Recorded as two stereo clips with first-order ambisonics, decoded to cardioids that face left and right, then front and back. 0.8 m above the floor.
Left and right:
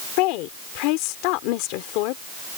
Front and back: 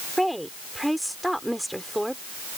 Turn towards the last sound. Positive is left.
turn(degrees=90)